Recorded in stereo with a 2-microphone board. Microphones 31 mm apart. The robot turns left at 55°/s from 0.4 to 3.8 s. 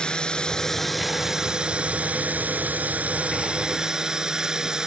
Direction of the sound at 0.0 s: 35° left.